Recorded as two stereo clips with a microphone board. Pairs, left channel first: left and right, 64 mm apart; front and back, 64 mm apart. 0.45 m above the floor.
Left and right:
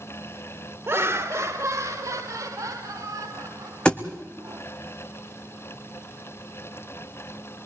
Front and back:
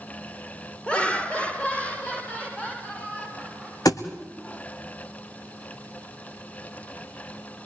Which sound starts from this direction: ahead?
A thud, at 3.9 s.